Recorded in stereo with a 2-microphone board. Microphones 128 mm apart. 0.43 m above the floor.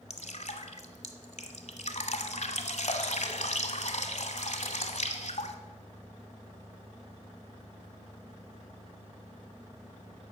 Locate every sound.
0.1 s dripping: 65° left (ahead or behind), 1.3 m